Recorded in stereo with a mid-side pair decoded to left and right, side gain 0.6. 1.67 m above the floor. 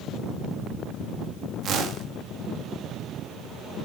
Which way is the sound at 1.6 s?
50° right.